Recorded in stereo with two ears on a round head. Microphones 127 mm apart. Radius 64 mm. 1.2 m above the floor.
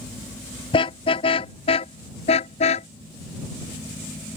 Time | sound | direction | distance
0.7 | a car horn | 40° left (ahead or behind) | ?